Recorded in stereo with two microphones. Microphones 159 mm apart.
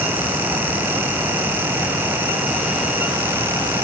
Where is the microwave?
I don't hear a microwave.